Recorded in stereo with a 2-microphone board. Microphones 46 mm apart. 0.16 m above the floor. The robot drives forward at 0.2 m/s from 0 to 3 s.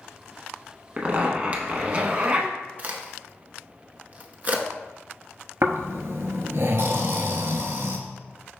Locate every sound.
1.0 s a zipper: 30° right (ahead or behind), 0.6 m
2.8 s a crack: 35° right (ahead or behind), 0.5 m
5.6 s snoring: 60° right (ahead or behind), 0.5 m